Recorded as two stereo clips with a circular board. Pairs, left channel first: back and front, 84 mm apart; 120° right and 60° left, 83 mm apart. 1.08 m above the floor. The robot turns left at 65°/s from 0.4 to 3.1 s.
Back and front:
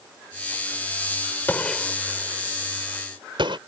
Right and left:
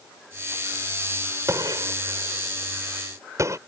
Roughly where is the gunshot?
Behind left.